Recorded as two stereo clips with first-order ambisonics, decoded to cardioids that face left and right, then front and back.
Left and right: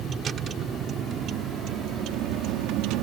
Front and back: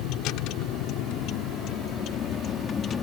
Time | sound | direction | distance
0.0 | a vehicle | 25° right | ?